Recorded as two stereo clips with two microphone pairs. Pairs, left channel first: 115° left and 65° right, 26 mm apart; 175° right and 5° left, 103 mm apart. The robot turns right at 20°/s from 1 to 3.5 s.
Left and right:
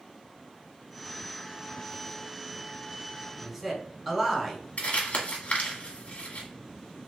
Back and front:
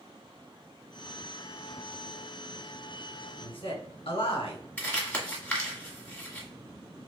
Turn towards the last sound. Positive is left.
turn(degrees=110)